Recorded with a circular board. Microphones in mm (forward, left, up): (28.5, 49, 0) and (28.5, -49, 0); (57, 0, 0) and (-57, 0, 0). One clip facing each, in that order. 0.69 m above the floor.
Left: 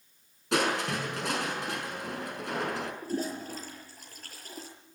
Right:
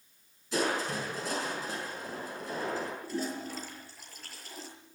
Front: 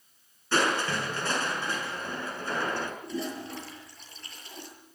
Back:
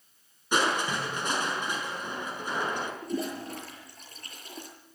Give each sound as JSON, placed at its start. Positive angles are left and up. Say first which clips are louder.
{"t": 0.5, "sound": "crushing", "louder": "left 3 dB, even", "azimuth_deg": 105, "distance_m": 6.0}
{"t": 3.0, "sound": "a toilet flushing", "louder": "left 2 dB, back 2 dB", "azimuth_deg": 135, "distance_m": 7.5}